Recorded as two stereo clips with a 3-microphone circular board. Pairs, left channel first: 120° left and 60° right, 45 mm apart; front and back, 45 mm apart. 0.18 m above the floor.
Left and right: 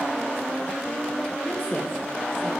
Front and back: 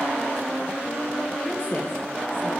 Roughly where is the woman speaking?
Ahead left.